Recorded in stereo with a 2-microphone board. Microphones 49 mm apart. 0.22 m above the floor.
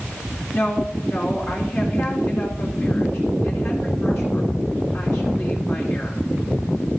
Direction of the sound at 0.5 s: 55° left (ahead or behind).